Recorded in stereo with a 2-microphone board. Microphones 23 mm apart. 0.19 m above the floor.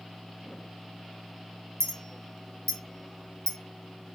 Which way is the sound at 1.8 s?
25° left (ahead or behind).